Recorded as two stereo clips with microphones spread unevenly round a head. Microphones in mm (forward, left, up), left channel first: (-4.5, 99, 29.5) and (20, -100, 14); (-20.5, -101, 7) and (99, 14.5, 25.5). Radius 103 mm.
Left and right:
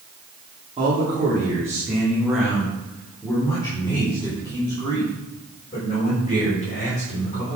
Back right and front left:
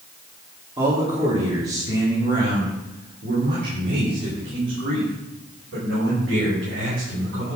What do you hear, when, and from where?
0.8 s a man speaking: 20° right, 3 m; by 7.6 s 45° left, 7 m